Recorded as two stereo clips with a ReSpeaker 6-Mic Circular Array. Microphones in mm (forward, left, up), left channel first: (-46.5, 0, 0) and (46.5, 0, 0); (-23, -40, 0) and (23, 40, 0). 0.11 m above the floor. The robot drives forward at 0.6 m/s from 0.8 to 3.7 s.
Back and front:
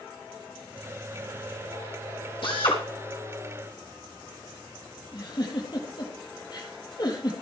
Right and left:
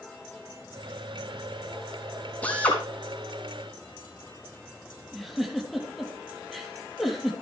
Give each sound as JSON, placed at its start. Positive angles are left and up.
{"t": 2.4, "sound": "a drill", "azimuth_deg": 165, "distance_m": 4.5}
{"t": 5.1, "sound": "a giggle", "azimuth_deg": 150, "distance_m": 4.0}